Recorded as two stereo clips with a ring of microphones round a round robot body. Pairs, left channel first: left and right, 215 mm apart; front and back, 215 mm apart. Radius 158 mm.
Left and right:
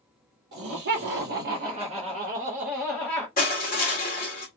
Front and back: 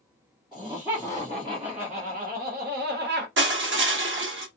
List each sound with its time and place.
0.5 s laughter: 95° right, 1.2 m; by 3.3 s 170° left, 1.0 m
3.4 s crushing: 150° left, 1.3 m